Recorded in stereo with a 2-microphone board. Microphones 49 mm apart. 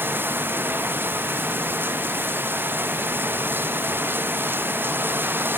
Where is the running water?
45° right (ahead or behind).